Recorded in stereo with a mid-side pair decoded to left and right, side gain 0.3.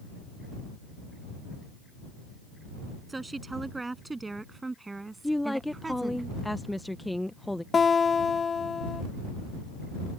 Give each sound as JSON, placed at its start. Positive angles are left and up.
{"t": 3.1, "sound": "a woman speaking", "azimuth_deg": -30}
{"t": 5.2, "sound": "a woman speaking", "azimuth_deg": 10}
{"t": 7.7, "sound": "a guitar", "azimuth_deg": 55}